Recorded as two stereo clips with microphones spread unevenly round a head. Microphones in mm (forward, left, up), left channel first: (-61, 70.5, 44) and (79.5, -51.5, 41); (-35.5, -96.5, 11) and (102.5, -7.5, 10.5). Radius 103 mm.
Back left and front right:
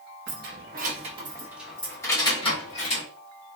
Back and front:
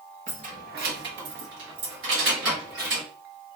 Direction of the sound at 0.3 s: 10° right.